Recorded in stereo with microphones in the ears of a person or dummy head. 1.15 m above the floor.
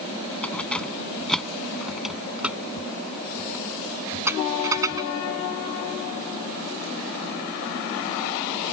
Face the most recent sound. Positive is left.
turn(degrees=-15)  # may be behind; listen again after turning